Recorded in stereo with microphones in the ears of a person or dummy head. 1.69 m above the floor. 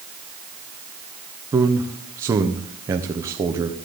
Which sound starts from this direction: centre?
A man speaking, at 1.5 s.